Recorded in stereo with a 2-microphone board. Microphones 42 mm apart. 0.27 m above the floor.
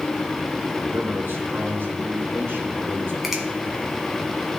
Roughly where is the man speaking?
Right.